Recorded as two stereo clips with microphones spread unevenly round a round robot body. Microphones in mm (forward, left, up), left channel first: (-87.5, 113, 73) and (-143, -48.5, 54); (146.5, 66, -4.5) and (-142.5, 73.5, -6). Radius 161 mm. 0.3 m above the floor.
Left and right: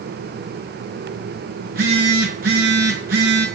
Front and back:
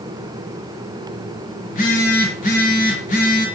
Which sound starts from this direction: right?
A phone buzzing, at 1.6 s.